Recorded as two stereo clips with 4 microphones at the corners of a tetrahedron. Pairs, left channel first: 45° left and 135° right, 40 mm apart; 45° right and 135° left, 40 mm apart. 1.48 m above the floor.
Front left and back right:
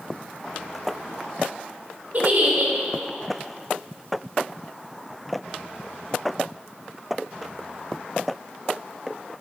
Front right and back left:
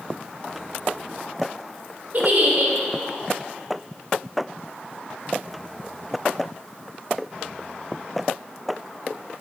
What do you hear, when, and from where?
2.1 s a giggle: straight behind, 0.9 m